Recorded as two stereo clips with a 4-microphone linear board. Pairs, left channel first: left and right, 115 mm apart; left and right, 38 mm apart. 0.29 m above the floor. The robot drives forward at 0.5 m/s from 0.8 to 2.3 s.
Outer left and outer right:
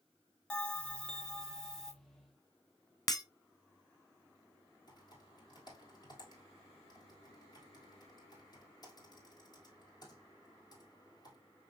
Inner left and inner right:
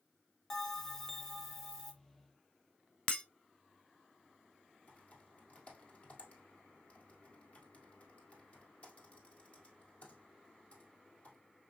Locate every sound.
0.5 s a bell: 10° left (ahead or behind), 0.7 m; by 1.9 s 5° left (ahead or behind), 1.1 m
3.1 s breaking glass: 35° left (ahead or behind), 0.6 m
4.9 s typing on a keyboard: 35° left (ahead or behind), 1.7 m